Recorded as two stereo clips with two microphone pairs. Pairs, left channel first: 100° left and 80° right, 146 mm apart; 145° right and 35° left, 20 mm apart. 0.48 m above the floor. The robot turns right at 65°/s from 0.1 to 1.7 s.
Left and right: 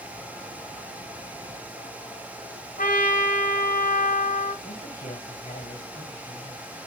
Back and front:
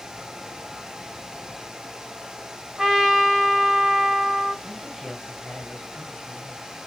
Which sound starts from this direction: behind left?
A man speaking, at 4.6 s.